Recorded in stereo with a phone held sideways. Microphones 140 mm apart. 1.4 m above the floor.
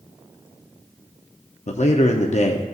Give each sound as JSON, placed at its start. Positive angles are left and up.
{"t": 1.7, "sound": "a man speaking", "side_deg": 55, "distance_m": 0.7}